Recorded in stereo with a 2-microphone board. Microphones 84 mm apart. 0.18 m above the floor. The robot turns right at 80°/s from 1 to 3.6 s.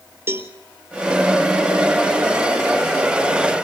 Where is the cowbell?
30° right (ahead or behind), 1.1 m.